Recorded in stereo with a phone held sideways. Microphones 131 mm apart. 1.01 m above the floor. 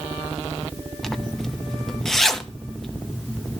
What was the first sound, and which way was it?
A zipper, 5° left (ahead or behind).